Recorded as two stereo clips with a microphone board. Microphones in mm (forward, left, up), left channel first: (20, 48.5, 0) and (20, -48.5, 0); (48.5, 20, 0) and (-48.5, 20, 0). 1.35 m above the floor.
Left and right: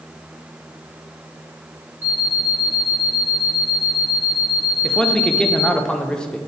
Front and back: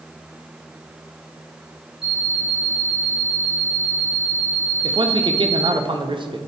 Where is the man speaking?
170° left, 0.6 m.